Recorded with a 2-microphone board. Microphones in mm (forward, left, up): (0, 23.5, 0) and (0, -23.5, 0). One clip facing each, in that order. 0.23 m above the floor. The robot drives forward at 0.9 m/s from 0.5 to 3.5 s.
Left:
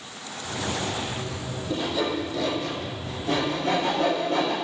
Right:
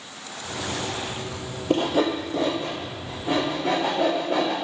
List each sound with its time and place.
1.7 s sawing: 60° right (ahead or behind), 0.9 m; by 4.5 s 20° right (ahead or behind), 2 m